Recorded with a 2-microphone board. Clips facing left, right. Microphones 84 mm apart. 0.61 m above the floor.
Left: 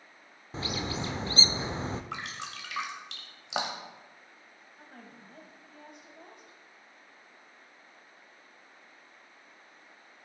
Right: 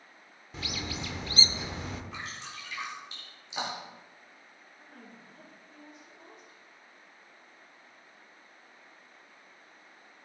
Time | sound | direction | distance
0.5 | a bird | 30° left (ahead or behind) | 0.5 m
2.1 | dripping | 80° left | 1.8 m
4.8 | a woman speaking | 65° left (ahead or behind) | 3 m